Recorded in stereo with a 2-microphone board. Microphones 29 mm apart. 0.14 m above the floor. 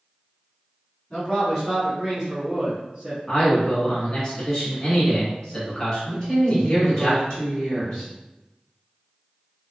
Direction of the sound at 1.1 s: 25° left (ahead or behind).